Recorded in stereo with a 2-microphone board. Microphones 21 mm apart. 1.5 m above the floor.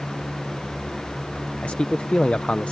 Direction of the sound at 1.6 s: 80° left.